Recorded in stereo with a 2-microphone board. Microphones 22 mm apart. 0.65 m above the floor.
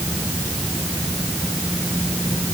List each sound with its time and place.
Only background noise.